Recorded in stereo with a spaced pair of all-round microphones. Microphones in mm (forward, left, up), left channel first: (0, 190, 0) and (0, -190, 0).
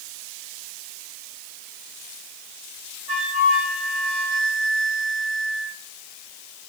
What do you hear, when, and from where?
3.1 s a flute: 80° right, 6 m